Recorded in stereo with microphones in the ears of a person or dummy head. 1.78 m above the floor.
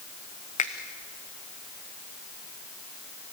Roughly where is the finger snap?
Left.